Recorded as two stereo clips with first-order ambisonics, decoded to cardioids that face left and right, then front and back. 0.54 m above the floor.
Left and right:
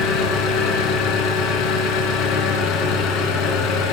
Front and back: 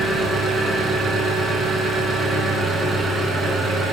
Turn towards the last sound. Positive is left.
turn(degrees=105)